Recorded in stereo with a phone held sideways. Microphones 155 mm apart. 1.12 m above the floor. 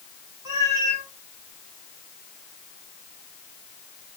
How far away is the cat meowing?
About 4.5 m.